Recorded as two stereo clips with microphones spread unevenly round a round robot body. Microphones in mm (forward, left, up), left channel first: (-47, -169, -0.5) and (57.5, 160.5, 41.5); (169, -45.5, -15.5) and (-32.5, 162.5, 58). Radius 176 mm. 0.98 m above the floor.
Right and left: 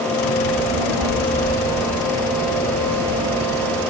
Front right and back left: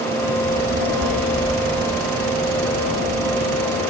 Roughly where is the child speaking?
Left.